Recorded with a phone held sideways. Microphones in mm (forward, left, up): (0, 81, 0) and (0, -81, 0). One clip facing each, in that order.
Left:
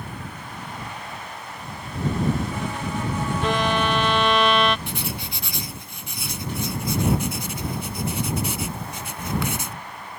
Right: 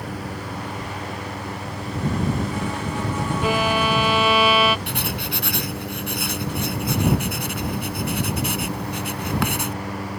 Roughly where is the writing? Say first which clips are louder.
Right 4 dB; right.